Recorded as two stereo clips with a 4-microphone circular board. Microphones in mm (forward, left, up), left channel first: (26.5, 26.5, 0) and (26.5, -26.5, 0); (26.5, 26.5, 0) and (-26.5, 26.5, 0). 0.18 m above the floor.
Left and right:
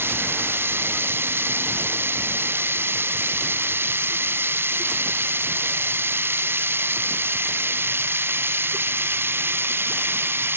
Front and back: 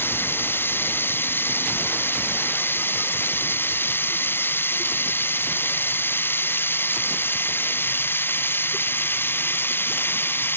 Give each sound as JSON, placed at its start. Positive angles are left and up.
{"t": 0.0, "sound": "running water", "azimuth_deg": -45}